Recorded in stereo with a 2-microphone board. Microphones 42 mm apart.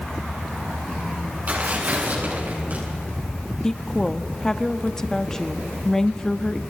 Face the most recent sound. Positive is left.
turn(degrees=15)  # may be behind; listen again after turning